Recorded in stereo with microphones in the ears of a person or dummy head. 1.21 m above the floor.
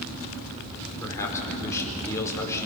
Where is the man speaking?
15° left (ahead or behind), 5 m.